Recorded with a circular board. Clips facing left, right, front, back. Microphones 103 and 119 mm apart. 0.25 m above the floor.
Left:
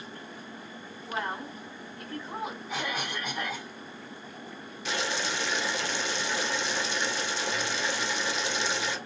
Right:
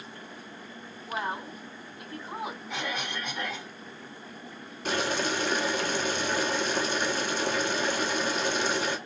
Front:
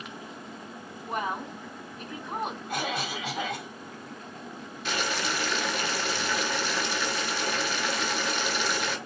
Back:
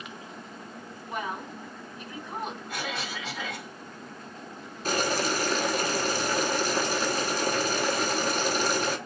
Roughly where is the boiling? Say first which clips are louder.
Right 4 dB, back 4 dB; behind right.